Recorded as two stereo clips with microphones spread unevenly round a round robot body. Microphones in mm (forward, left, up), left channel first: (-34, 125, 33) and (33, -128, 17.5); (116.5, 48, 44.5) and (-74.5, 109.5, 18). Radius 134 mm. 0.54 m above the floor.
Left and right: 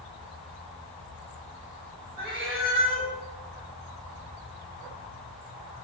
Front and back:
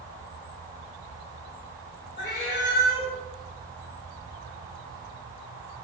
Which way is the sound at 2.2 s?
10° left.